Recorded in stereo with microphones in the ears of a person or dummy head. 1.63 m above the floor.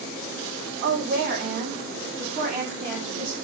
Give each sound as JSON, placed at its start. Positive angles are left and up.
{"t": 0.8, "sound": "a woman speaking", "side_deg": -60, "distance_m": 0.6}